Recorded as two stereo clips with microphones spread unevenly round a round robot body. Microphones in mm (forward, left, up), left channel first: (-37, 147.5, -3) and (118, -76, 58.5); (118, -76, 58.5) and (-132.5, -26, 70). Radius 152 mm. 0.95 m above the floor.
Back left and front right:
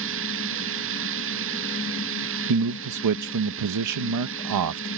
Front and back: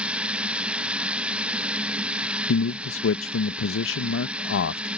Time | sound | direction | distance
0.0 | running water | 105° right | ?
2.5 | a man speaking | 35° right | ?